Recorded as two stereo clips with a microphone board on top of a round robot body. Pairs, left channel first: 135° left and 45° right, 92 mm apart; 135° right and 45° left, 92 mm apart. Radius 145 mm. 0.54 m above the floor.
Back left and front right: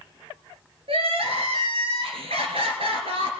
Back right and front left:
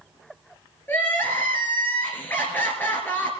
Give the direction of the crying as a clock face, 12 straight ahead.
2 o'clock.